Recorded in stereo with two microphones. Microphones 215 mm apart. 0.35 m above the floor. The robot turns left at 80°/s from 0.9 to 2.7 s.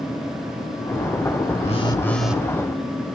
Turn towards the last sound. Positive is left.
turn(degrees=-35)